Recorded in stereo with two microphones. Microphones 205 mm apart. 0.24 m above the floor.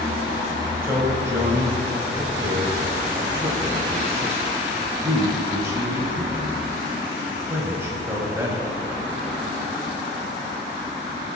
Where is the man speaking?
10° right (ahead or behind), 1.4 m.